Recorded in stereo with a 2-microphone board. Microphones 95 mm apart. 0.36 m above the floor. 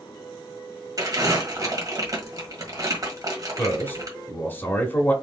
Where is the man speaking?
25° left (ahead or behind), 0.9 m.